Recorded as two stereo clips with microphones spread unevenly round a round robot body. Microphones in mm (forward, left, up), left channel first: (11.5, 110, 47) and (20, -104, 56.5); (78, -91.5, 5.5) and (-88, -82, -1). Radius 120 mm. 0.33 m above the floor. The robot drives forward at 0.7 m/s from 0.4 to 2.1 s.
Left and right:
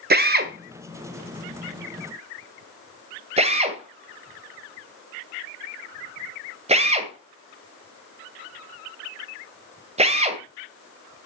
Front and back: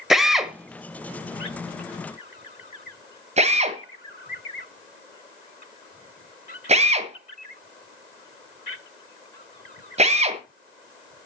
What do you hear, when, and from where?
0.1 s a drill: 100° right, 1.4 m; by 10.4 s 145° right, 1.9 m